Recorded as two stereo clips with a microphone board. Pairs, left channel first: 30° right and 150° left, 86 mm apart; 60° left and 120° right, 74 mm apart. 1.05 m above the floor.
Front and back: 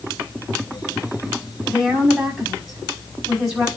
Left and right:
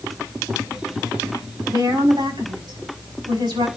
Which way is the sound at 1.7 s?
125° right.